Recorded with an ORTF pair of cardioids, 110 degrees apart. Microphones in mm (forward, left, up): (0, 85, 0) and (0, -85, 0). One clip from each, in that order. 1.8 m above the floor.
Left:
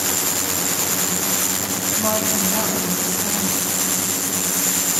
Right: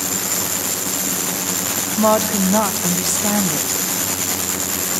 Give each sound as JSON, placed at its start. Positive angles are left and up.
{"t": 2.0, "sound": "a woman speaking", "azimuth_deg": -55, "distance_m": 1.5}